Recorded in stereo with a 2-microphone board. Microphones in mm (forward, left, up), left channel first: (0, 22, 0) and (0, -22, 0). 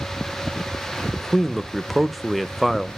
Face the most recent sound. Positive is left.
turn(degrees=0)  # may be behind; listen again after turning